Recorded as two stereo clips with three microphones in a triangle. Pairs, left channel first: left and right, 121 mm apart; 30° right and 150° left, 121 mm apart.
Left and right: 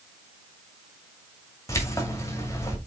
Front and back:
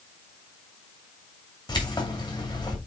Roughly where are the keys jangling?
Ahead left.